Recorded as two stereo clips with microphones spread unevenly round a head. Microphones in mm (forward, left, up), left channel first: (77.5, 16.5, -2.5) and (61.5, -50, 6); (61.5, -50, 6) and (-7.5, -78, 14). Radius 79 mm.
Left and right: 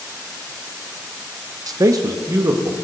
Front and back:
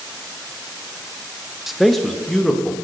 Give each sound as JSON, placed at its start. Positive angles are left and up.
{"t": 1.7, "sound": "a man speaking", "azimuth_deg": -70, "distance_m": 0.7}